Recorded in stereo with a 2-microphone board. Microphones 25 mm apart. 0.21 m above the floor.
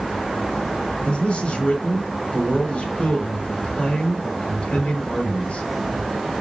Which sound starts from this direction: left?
A man speaking, at 1.0 s.